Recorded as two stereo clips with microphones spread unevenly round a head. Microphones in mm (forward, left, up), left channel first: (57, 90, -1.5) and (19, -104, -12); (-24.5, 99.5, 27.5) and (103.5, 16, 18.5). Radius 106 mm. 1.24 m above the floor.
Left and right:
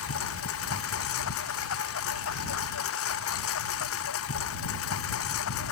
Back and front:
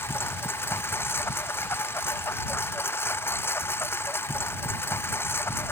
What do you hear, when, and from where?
0.0 s a lawn mower: 70° left